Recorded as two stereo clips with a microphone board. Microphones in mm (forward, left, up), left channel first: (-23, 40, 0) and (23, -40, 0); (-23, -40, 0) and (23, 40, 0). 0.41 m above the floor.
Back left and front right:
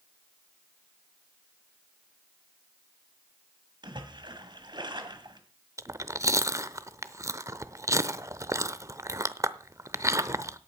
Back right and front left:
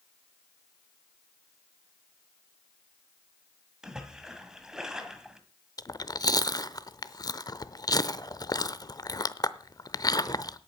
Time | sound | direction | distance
3.8 | a splash | 25° right | 1.8 m
5.8 | chewing | 100° right | 0.7 m